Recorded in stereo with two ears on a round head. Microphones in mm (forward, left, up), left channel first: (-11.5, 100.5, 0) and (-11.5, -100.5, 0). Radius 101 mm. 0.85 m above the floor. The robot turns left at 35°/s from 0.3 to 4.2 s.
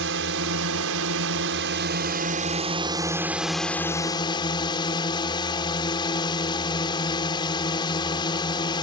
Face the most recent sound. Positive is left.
turn(degrees=155)